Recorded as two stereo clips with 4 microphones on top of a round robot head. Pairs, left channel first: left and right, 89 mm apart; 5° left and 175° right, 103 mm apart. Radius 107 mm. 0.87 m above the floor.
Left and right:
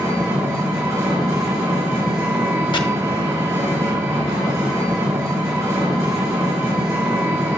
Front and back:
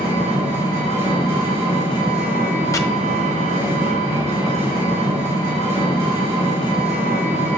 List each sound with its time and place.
0.0 s an engine running: 155° right, 2.5 m
2.7 s chopping: 60° left, 1.1 m